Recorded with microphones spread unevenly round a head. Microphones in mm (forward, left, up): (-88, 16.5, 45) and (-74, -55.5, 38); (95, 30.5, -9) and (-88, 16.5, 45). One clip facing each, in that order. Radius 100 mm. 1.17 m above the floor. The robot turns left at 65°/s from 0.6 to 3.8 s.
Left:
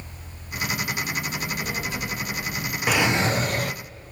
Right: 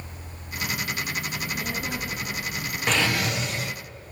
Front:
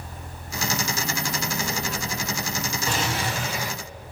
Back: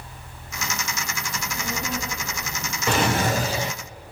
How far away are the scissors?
I don't hear scissors.